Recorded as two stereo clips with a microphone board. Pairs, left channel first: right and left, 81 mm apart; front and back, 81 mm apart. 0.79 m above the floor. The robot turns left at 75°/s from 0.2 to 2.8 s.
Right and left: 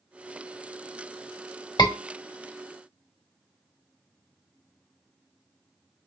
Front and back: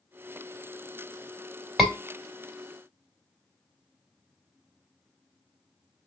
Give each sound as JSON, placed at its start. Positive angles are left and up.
{"t": 1.8, "sound": "a scream", "azimuth_deg": -90, "distance_m": 1.9}